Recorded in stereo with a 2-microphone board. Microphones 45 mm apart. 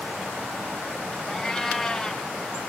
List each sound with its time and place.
1.3 s a cat meowing: 10° left (ahead or behind), 0.6 m